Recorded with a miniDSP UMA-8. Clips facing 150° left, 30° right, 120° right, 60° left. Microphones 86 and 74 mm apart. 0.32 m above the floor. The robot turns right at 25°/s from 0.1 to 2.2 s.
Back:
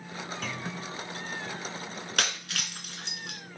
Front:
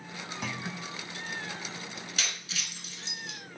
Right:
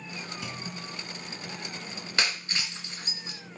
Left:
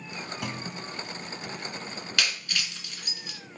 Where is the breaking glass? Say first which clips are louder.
Back 7 dB, right 1 dB; straight behind, 2 m.